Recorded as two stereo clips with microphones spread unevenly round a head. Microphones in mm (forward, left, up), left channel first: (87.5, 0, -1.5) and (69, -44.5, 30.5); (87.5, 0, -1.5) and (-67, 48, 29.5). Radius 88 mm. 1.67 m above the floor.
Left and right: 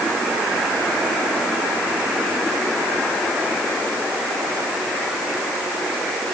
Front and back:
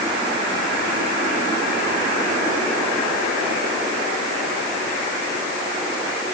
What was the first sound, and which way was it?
Only background noise.